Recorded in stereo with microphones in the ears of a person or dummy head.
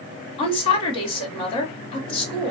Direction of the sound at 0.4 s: 30° left (ahead or behind).